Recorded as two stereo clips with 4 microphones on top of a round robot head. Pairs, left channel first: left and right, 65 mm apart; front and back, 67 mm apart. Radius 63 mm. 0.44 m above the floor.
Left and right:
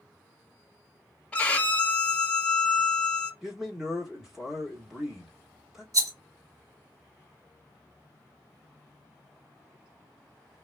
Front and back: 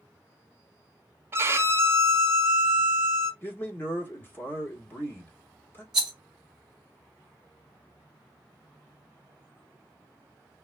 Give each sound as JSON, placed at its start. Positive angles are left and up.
{"t": 1.3, "sound": "a violin", "azimuth_deg": 150, "distance_m": 0.7}
{"t": 3.4, "sound": "a man speaking", "azimuth_deg": -15, "distance_m": 1.3}
{"t": 5.9, "sound": "a rattle", "azimuth_deg": -100, "distance_m": 1.1}